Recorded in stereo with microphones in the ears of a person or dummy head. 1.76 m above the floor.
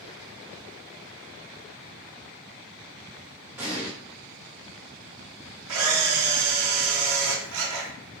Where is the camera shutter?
70° right (ahead or behind), 0.8 m.